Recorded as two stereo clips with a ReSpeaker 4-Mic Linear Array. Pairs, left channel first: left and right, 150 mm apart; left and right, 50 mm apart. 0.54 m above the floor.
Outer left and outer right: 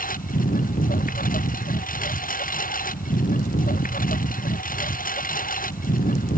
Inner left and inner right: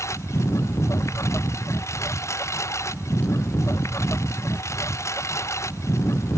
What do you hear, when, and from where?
0.0 s a lawn mower: 65° left (ahead or behind)